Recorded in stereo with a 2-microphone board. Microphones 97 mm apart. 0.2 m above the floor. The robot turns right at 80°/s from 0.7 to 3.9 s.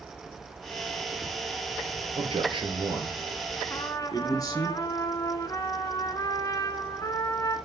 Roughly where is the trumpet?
Left.